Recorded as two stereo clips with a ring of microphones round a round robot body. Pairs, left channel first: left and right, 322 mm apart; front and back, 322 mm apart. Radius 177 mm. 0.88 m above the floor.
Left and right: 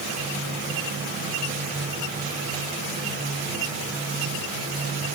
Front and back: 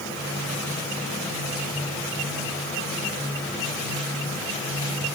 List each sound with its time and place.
Only background noise.